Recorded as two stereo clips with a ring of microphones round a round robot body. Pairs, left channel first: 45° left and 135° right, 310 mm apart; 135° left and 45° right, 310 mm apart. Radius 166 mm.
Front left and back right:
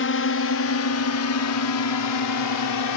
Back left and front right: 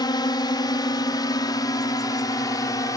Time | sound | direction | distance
0.0 | a drone | 65° left | ?